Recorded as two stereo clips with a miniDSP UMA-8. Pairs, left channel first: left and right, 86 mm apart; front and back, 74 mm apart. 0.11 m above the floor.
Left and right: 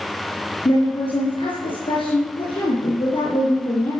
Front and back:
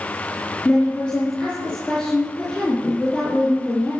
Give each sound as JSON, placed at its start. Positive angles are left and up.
{"t": 0.7, "sound": "a woman speaking", "azimuth_deg": 85, "distance_m": 4.5}